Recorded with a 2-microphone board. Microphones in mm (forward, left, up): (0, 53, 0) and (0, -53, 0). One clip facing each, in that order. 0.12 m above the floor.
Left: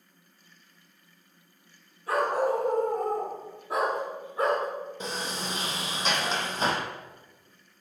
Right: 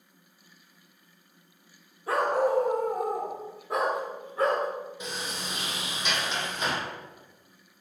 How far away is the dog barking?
About 1.7 m.